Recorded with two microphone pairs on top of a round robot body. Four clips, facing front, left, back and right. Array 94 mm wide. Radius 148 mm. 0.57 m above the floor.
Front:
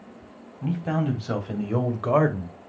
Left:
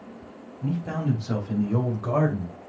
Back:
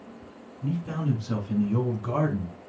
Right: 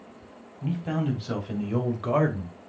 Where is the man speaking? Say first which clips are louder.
Even, front 4 dB; straight ahead, 3.5 m; by 2.6 s 10° right, 2.5 m.